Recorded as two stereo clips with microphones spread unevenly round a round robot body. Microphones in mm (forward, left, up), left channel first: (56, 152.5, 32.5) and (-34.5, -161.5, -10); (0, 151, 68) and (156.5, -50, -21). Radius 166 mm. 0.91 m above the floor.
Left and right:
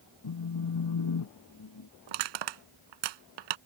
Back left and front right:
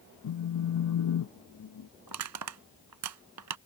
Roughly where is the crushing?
Right.